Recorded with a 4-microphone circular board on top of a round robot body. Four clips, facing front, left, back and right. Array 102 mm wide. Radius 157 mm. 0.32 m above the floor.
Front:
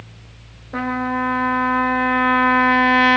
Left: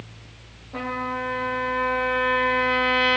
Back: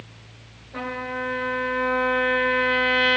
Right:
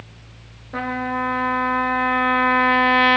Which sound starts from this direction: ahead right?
A trumpet, at 0.7 s.